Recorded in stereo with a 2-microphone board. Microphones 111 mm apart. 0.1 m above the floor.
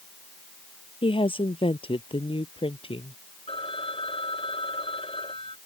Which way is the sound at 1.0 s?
50° left (ahead or behind).